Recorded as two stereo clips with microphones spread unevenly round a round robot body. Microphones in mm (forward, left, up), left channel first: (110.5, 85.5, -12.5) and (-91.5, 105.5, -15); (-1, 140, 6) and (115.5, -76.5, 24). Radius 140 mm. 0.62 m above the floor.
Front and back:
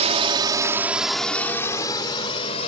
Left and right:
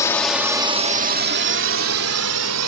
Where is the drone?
Straight behind; by 2.7 s 70° right.